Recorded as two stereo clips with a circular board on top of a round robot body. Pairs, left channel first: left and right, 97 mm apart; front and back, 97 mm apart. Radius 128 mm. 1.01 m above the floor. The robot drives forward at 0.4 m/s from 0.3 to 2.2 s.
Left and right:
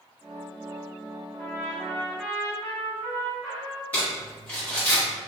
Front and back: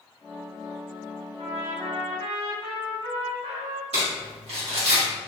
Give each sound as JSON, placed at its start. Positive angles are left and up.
{"t": 1.4, "sound": "a trumpet", "azimuth_deg": 155, "distance_m": 0.9}
{"t": 3.9, "sound": "crumpling", "azimuth_deg": 165, "distance_m": 1.7}